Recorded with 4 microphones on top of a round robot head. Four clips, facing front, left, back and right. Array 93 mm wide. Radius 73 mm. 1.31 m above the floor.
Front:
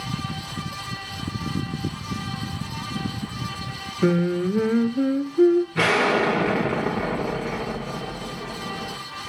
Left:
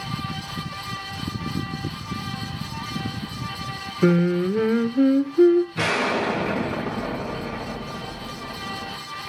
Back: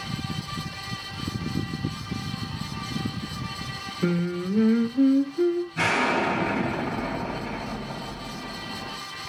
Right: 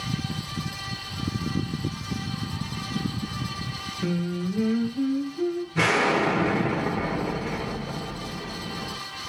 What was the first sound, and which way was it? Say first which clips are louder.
Singing: left 10 dB, front 6 dB; 60° left.